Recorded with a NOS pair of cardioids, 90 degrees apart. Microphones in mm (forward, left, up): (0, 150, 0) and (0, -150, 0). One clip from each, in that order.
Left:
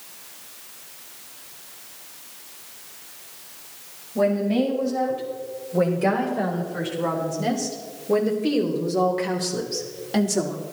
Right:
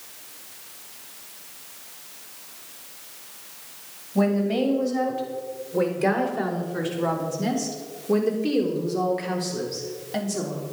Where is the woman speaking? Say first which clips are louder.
Left 2 dB; 30° right, 6.5 m; by 10.6 s 35° left, 3.5 m.